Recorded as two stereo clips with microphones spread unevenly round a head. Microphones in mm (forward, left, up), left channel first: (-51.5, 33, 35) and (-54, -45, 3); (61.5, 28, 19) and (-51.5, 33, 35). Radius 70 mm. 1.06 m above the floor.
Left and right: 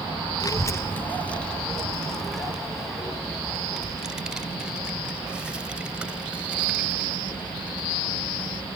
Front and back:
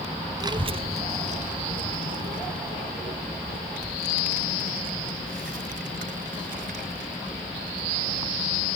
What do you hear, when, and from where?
0.4 s a child speaking: 120° left; by 8.7 s 170° right